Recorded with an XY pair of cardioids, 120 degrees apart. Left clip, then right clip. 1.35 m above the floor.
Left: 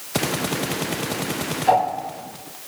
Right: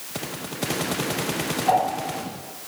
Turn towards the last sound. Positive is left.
turn(degrees=20)